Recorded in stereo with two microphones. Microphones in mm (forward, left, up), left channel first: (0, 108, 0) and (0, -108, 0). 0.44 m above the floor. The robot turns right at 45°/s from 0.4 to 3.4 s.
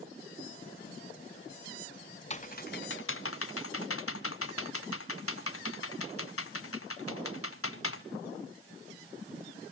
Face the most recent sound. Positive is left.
turn(degrees=80)